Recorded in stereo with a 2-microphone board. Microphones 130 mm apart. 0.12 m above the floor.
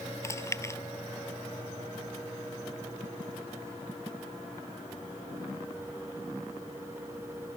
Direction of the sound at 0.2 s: 20° left (ahead or behind).